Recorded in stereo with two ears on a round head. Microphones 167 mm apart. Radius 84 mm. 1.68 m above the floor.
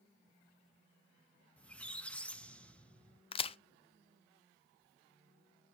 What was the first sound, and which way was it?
A squeak, 5° left (ahead or behind).